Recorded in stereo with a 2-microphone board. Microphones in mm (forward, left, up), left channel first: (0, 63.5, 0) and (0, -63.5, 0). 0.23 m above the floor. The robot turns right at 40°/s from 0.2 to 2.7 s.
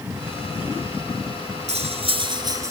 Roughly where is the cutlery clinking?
Ahead right.